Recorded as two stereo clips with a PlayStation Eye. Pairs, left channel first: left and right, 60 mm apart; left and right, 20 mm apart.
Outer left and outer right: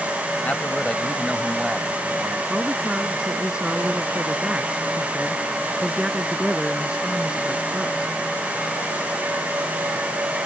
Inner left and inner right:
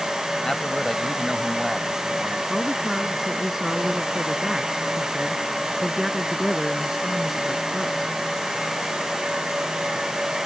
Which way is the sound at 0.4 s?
30° left (ahead or behind).